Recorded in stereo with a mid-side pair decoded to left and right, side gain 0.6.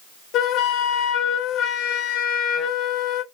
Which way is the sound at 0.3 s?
65° left.